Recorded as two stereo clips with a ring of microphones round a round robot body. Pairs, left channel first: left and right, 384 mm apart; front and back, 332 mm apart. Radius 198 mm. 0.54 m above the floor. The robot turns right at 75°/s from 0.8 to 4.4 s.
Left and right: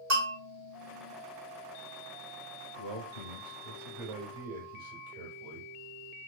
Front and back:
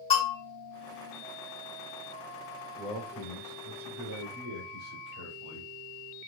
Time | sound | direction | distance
0.1 | a bell | 75° right | 2.5 m
2.8 | a man speaking | 80° left | 3 m